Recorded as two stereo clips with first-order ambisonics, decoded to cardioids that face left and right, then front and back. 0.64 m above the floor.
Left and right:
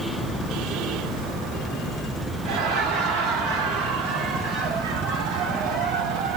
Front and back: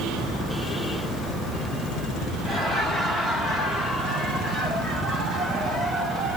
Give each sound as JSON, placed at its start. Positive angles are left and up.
{"t": 2.5, "sound": "laughter", "azimuth_deg": -90, "distance_m": 1.8}